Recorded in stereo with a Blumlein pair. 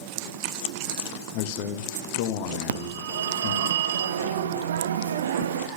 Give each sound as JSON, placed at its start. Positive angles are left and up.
{"t": 1.3, "sound": "a man speaking", "azimuth_deg": 45, "distance_m": 1.2}
{"t": 2.7, "sound": "a phone ringing", "azimuth_deg": -60, "distance_m": 0.8}